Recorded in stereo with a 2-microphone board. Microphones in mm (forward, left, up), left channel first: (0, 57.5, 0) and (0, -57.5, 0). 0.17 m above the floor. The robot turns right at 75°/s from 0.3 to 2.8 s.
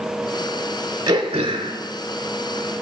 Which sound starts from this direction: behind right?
Throat clearing, at 1.1 s.